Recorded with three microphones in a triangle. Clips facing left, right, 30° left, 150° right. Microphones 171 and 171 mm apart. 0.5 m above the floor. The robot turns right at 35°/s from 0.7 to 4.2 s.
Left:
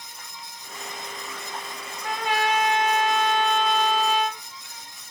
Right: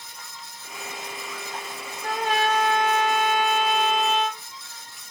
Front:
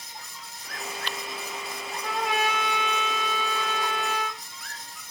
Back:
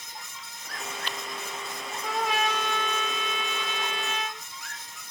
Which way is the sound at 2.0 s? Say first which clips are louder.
Right 1 dB, even; 70° right.